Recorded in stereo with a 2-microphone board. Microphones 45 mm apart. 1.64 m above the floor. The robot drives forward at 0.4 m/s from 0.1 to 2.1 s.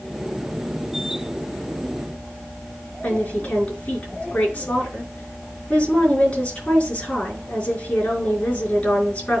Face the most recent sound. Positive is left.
turn(degrees=35)  # may be behind; listen again after turning